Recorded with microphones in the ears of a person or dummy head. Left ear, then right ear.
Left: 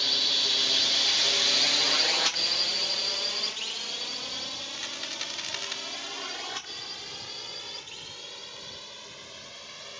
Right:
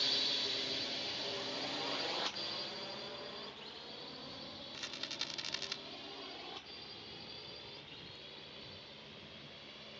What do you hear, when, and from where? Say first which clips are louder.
0.0 s a drone: left 10 dB; 10° left (ahead or behind); by 10.0 s 60° left (ahead or behind)
4.7 s a rattle: left 8 dB; 20° left (ahead or behind)